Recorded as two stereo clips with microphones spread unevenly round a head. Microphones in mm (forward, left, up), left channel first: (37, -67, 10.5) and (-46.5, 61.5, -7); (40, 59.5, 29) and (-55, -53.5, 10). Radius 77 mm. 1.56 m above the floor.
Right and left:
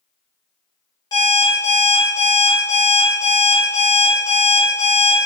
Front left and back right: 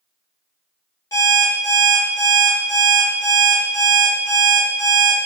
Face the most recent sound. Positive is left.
turn(degrees=-5)